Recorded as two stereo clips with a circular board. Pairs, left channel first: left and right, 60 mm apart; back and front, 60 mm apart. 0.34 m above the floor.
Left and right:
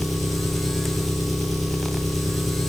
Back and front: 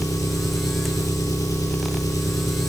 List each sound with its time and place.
0.0 s an engine running: straight behind, 5.5 m